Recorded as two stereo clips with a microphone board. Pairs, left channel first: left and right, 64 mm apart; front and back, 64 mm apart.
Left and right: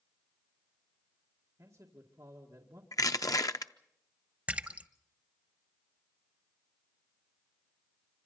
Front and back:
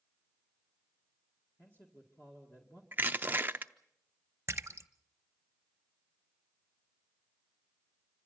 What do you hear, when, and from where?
1.6 s a man speaking: 55° right, 2.5 m
2.9 s crushing: 120° left, 0.7 m
4.5 s a splash: 150° right, 0.8 m